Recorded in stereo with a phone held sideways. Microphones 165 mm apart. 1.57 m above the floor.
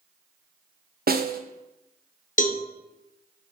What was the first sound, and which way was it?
A snare drum, 65° right (ahead or behind).